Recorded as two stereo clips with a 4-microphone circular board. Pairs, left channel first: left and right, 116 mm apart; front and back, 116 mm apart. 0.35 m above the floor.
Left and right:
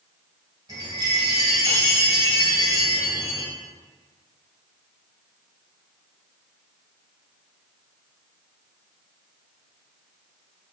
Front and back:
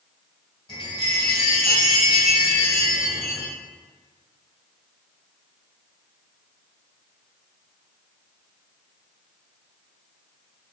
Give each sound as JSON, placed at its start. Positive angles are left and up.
{"t": 0.7, "sound": "a chime", "azimuth_deg": -35, "distance_m": 1.5}